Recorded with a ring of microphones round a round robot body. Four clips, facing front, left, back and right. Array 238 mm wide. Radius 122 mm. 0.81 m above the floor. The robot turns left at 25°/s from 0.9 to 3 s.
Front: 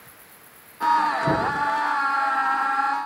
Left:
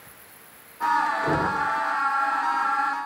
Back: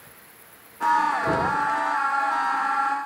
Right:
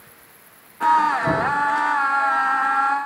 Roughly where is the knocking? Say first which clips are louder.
Right 3 dB, even; right.